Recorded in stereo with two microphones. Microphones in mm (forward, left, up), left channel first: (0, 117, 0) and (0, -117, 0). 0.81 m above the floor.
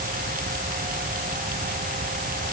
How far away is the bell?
No bell in this recording.